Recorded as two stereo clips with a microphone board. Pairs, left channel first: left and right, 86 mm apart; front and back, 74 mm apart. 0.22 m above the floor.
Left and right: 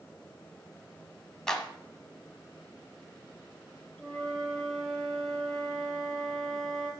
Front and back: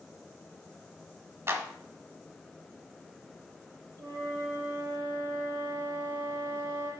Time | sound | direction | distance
1.5 | a clap | 165° left | 1.2 m
4.0 | a flute | 170° left | 5 m